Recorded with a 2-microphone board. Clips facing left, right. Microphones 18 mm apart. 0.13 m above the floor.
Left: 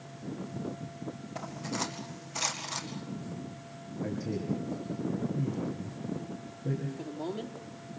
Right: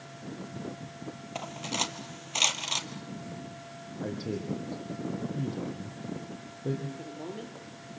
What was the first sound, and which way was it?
Cutlery clinking, 60° right (ahead or behind).